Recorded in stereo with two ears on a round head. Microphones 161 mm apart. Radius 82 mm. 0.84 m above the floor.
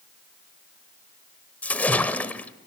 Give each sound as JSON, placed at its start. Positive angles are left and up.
{"t": 1.6, "sound": "a splash", "side_deg": 10, "distance_m": 1.0}